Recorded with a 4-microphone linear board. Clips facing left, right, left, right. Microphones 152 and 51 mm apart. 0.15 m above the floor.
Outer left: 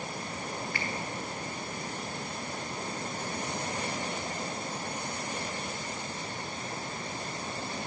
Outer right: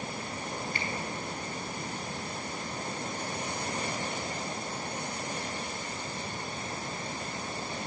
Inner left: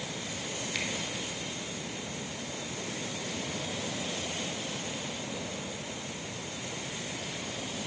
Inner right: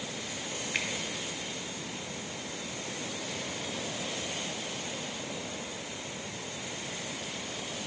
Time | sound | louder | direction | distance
0.7 | a finger snap | even, inner right 2 dB | 25° right (ahead or behind) | 1.5 m